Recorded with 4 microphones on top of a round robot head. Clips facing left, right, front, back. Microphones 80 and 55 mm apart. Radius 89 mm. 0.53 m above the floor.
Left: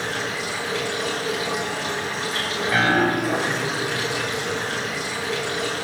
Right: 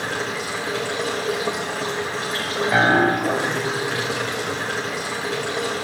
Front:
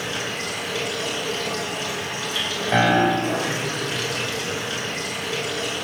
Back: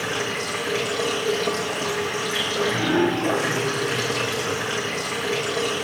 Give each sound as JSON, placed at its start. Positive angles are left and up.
{"t": 0.0, "sound": "running water", "azimuth_deg": -135, "distance_m": 4.5}
{"t": 2.7, "sound": "a piano", "azimuth_deg": -25, "distance_m": 1.2}